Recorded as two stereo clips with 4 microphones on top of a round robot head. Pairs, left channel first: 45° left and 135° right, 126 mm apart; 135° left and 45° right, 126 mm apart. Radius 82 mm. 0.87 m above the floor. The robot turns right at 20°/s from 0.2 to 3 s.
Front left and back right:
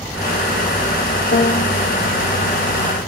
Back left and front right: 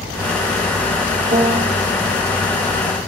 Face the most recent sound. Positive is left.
turn(degrees=40)